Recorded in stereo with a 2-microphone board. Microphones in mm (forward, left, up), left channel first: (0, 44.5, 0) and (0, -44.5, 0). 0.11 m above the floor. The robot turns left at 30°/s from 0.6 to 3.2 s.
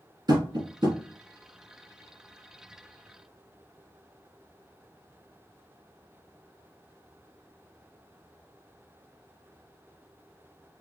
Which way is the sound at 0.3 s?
45° right (ahead or behind).